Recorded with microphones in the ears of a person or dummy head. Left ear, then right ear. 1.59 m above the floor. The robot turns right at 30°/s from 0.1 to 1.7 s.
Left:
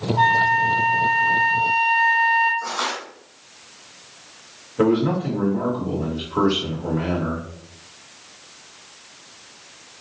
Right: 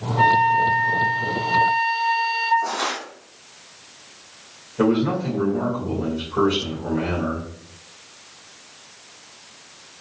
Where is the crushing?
70° left (ahead or behind), 1.4 m.